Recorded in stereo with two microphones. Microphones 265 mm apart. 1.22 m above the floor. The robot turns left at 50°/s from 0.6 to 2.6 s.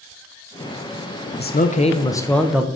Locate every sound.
1.4 s a man speaking: 55° left, 0.5 m; by 2.7 s 5° right, 0.5 m